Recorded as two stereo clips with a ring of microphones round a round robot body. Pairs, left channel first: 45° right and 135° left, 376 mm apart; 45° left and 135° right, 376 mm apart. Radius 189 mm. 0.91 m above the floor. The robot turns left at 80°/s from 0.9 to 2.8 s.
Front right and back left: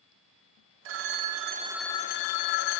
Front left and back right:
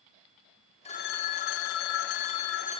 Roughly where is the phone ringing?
Behind left.